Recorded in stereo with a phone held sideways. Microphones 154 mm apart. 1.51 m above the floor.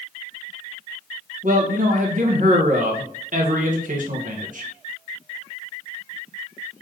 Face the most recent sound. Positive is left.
turn(degrees=-60)  # may be behind; listen again after turning